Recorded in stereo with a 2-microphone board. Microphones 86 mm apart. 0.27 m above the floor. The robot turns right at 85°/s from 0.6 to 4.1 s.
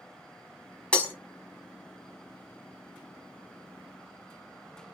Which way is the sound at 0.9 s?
15° left (ahead or behind).